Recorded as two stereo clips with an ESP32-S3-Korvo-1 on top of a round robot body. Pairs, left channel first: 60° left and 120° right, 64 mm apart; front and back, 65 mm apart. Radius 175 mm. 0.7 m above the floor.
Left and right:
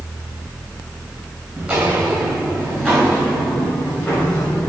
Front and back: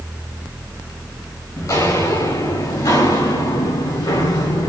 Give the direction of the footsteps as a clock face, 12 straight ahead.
1 o'clock.